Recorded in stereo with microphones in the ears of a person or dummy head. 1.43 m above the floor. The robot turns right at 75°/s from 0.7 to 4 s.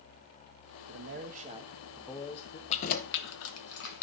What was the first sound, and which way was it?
A man speaking, 85° right.